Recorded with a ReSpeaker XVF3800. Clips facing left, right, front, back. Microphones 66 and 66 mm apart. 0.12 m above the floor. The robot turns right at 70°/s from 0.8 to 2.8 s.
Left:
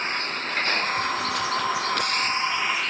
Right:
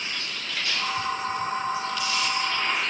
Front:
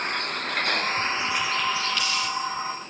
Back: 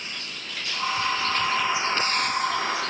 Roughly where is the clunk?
I don't hear a clunk.